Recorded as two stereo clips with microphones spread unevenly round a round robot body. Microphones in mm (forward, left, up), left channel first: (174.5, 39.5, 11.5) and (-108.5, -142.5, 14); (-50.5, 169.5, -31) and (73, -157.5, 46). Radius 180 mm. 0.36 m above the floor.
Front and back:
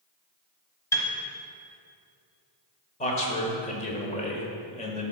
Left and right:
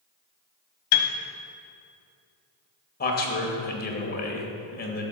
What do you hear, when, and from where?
0.9 s a piano: 115° left, 0.9 m
3.0 s a man speaking: 90° left, 1.2 m